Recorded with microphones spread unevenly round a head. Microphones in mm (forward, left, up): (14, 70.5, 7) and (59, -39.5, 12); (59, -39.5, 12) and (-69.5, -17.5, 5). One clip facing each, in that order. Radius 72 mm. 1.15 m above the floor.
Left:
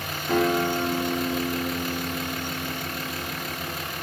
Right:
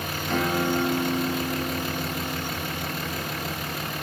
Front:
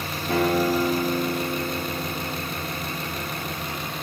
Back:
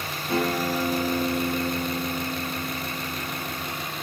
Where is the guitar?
30° left, 1.9 m.